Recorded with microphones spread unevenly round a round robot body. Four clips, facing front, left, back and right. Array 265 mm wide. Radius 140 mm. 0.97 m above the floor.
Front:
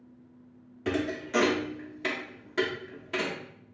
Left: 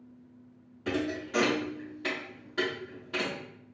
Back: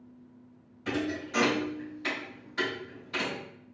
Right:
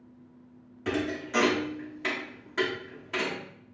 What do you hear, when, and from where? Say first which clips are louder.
0.8 s a thud: right 1 dB, front 2 dB; 20° right, 0.6 m